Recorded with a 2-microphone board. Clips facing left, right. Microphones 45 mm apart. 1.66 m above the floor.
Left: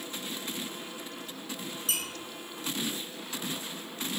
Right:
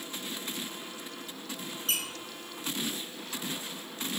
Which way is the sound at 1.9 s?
40° right (ahead or behind).